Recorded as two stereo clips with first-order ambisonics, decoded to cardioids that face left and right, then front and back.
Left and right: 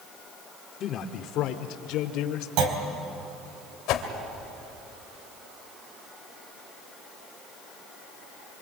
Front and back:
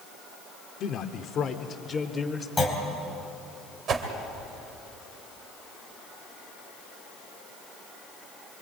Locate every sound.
0.8 s a man speaking: 40° left, 1.3 m; by 2.5 s 75° left, 1.9 m
2.6 s a clunk: 85° right, 3.5 m
3.9 s a whoosh: 125° left, 2.5 m